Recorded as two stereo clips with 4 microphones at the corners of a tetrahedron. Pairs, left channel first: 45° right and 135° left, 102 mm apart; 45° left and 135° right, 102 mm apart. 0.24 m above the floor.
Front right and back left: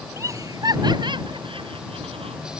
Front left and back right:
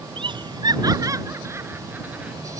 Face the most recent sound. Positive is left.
turn(degrees=145)